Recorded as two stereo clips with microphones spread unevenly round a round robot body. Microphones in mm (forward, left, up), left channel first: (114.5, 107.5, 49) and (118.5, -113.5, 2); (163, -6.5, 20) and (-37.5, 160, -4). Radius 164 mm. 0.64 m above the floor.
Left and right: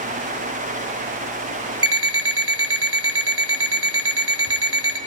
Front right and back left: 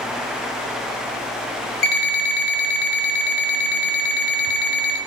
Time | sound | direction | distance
1.8 | an alarm clock | 65° right | 1.1 m